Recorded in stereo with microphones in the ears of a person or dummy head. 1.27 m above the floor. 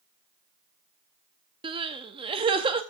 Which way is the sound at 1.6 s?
25° right (ahead or behind).